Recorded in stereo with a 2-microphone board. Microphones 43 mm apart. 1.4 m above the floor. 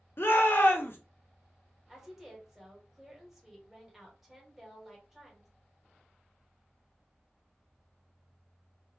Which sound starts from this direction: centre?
A woman speaking, at 1.9 s.